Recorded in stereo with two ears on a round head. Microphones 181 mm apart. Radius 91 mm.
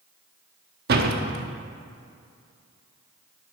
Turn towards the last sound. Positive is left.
turn(degrees=-50)  # may be behind; listen again after turning